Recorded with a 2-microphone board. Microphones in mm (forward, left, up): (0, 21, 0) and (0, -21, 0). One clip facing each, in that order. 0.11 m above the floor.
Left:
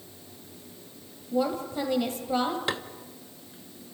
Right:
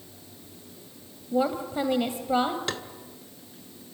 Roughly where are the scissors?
I don't hear scissors.